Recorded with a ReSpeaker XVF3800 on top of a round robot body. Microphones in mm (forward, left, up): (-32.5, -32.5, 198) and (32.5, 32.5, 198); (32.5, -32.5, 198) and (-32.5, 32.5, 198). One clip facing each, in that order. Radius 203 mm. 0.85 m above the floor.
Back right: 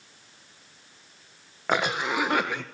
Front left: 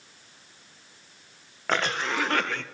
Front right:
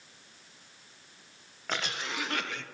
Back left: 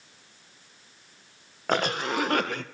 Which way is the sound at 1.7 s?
150° left.